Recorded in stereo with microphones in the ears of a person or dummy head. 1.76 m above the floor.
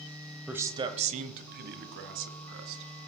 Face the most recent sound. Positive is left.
turn(degrees=-75)  # may be behind; listen again after turning